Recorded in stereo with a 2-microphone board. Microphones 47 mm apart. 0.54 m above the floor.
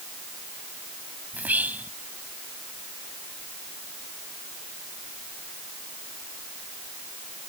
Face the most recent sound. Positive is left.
turn(degrees=-35)  # may be behind; listen again after turning